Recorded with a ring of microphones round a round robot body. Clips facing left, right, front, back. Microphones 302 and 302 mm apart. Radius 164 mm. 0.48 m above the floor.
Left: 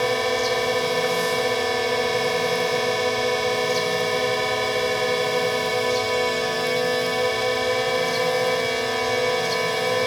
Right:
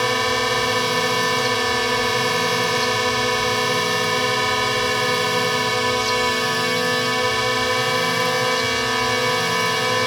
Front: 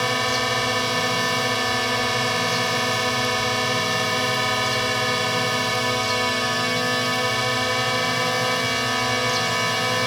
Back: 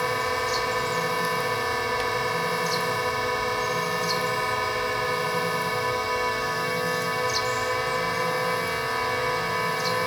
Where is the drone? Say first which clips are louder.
Left 1 dB, front 2 dB; 30° right.